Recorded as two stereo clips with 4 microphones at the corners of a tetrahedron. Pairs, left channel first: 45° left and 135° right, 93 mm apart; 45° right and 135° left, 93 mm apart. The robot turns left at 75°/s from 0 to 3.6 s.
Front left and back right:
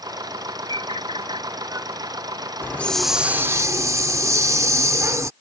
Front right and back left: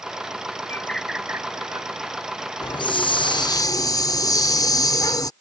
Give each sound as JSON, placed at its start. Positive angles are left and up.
{"t": 0.7, "sound": "a bird", "azimuth_deg": -110}
{"t": 2.6, "sound": "a hiss", "azimuth_deg": -15}